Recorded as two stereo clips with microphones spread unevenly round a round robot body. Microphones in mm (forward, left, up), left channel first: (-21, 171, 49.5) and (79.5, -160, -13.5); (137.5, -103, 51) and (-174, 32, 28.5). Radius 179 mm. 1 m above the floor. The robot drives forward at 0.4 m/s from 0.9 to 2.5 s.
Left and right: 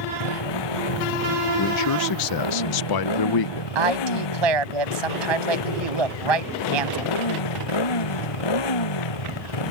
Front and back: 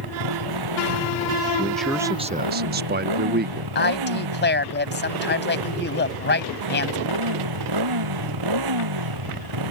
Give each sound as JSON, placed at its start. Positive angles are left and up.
{"t": 0.0, "sound": "a motorcycle", "azimuth_deg": 130}
{"t": 1.6, "sound": "a man speaking", "azimuth_deg": 60}
{"t": 3.8, "sound": "a woman speaking", "azimuth_deg": -85}